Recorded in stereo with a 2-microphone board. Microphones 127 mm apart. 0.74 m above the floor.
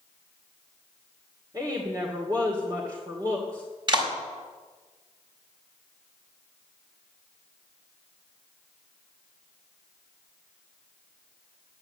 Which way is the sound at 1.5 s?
30° right (ahead or behind).